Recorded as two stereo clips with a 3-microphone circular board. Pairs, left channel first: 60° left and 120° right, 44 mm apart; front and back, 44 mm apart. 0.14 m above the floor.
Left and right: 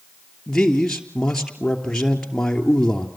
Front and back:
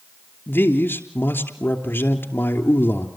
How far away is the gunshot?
I don't hear a gunshot.